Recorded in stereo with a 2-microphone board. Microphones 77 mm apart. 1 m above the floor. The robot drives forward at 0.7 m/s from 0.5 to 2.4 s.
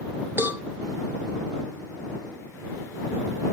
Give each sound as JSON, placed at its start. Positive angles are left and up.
{"t": 0.4, "sound": "a cowbell", "side_deg": -25, "distance_m": 0.7}